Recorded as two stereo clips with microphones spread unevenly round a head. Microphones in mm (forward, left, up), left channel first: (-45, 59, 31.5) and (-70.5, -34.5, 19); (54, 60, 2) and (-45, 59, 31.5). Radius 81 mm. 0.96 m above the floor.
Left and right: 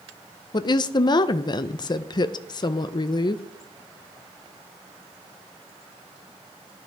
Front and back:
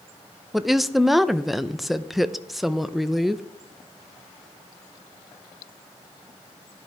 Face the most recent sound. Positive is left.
turn(degrees=70)